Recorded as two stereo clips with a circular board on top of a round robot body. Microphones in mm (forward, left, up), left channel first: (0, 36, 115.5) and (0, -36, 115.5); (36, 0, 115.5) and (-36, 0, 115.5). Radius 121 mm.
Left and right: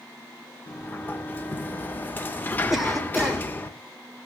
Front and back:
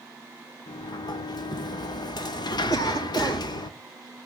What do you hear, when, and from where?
0.7 s a sliding door: 25° left, 0.6 m
2.7 s a cough: 5° right, 3.5 m